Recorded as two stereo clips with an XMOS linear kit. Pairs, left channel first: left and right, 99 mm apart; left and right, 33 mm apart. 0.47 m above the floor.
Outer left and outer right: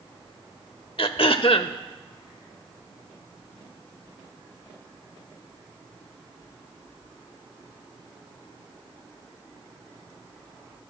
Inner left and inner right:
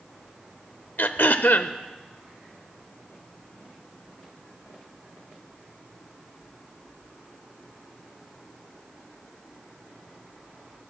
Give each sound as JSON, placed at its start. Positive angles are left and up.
{"t": 1.0, "sound": "throat clearing", "side_deg": 65, "distance_m": 0.7}